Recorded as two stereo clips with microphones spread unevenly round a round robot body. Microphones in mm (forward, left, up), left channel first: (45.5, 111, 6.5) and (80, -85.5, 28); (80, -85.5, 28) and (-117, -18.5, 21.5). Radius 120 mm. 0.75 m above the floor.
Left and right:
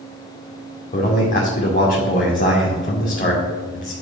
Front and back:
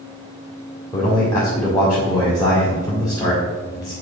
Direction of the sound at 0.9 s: 55° left.